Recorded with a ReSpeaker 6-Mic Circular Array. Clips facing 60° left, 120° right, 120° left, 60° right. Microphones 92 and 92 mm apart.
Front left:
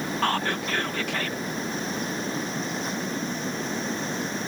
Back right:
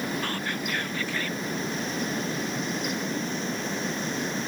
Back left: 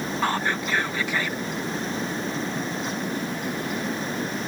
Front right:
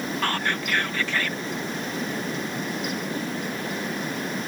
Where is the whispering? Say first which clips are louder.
Front left 5 dB, back left 3 dB; 45° left.